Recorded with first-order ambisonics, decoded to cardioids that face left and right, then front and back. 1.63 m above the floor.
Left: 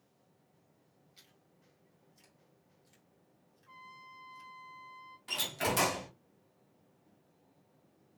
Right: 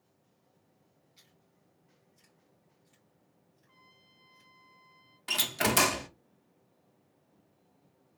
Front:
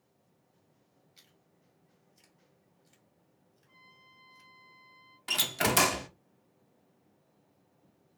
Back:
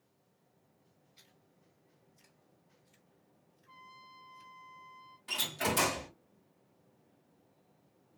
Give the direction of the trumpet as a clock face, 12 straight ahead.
8 o'clock.